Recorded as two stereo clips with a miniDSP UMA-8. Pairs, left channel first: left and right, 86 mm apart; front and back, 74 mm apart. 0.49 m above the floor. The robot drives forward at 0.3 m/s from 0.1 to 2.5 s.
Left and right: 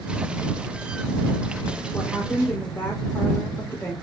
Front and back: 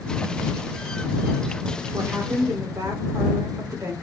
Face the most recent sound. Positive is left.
turn(degrees=150)